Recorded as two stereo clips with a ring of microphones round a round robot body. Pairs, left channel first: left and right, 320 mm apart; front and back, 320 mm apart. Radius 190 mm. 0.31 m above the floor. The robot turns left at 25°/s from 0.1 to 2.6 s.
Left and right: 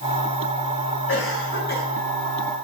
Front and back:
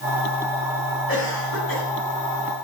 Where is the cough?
50° left, 5 m; by 1.9 s 30° left, 5 m.